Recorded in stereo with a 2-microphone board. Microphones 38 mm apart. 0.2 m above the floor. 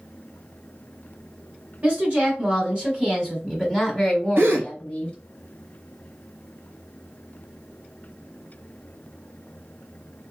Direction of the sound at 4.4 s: 70° right (ahead or behind).